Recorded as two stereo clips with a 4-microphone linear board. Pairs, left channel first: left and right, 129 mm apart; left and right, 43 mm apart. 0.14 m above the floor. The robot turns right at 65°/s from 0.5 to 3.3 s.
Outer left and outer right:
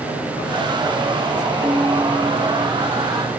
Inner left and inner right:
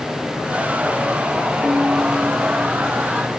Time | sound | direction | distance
1.6 | a piano | 60° right | 2 m